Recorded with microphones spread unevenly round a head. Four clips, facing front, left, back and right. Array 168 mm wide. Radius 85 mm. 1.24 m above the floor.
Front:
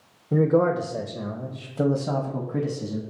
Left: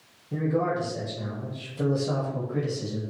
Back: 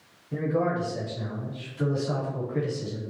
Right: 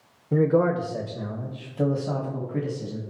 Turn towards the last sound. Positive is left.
turn(degrees=-5)